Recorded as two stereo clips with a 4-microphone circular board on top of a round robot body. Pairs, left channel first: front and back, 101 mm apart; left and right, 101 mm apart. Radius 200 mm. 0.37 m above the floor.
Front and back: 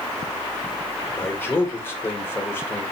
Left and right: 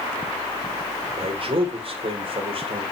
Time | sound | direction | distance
1.2 | a man speaking | 65° right | 2.5 m